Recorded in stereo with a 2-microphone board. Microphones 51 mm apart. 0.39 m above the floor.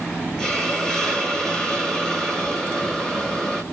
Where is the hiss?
15° left (ahead or behind), 1.5 m.